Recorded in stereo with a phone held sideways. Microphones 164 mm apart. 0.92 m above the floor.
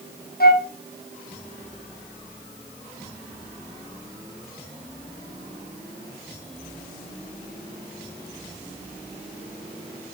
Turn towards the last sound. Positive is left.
turn(degrees=70)  # may be behind; listen again after turning